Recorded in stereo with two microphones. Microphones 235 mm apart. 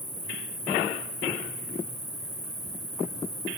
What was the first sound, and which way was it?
An insect, 35° left (ahead or behind).